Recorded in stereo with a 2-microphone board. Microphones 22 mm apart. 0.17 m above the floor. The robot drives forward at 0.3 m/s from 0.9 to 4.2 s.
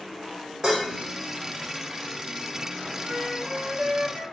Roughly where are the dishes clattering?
Right.